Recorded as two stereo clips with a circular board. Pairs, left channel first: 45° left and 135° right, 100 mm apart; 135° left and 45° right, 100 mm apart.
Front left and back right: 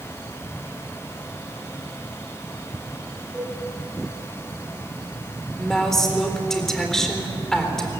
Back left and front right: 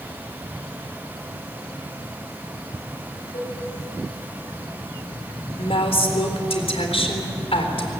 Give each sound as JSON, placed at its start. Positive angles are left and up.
{"t": 3.3, "sound": "a cowbell", "azimuth_deg": 140, "distance_m": 7.0}
{"t": 5.6, "sound": "a woman speaking", "azimuth_deg": 130, "distance_m": 4.0}